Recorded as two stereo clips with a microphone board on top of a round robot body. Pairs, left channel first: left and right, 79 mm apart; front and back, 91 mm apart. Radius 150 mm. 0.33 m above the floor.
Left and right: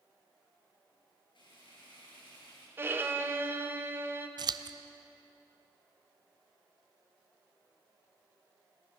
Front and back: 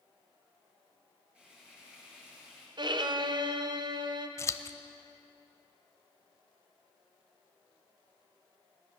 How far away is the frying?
About 7.5 m.